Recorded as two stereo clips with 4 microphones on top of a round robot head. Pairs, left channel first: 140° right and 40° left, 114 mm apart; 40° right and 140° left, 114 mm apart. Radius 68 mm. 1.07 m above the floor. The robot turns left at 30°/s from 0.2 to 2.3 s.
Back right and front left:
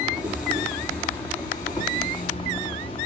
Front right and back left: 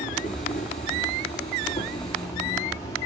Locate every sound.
0.0 s an insect: 40° right, 4 m; by 3.1 s 105° right, 4 m